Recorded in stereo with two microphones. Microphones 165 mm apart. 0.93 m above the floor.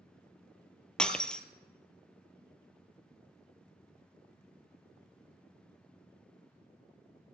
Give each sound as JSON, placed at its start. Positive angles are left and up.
{"t": 1.0, "sound": "breaking glass", "side_deg": 5, "distance_m": 0.9}